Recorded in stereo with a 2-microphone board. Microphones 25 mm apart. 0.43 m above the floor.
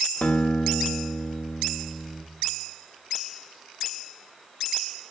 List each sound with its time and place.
0.2 s a guitar: 80° left, 0.5 m